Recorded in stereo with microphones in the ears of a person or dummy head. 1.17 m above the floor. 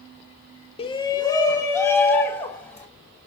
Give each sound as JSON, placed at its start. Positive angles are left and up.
{"t": 0.8, "sound": "a shout", "side_deg": 30, "distance_m": 0.7}